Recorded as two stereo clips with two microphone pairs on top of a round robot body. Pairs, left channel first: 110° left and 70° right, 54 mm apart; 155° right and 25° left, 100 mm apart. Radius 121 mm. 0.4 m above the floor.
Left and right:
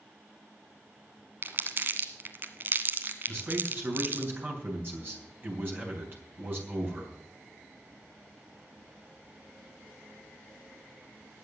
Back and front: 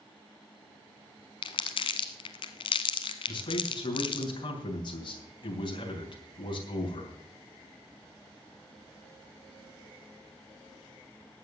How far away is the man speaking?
About 3.5 m.